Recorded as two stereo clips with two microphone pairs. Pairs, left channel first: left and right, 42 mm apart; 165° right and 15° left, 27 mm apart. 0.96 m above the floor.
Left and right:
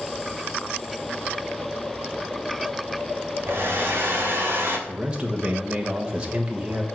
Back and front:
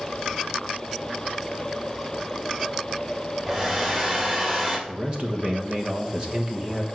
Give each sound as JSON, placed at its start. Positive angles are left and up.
{"t": 3.5, "sound": "a hair dryer", "azimuth_deg": -55, "distance_m": 3.0}
{"t": 4.9, "sound": "a man speaking", "azimuth_deg": -30, "distance_m": 1.3}